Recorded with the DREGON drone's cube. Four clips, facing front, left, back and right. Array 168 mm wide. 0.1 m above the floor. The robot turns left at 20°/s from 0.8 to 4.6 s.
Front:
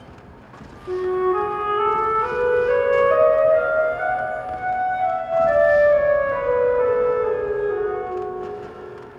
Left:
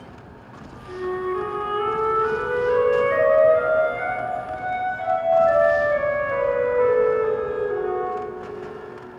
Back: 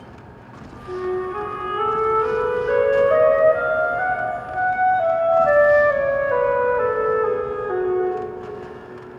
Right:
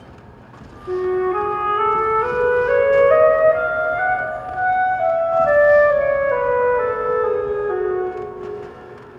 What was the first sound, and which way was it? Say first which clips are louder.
A flute: right 7 dB, front 4 dB; 60° right.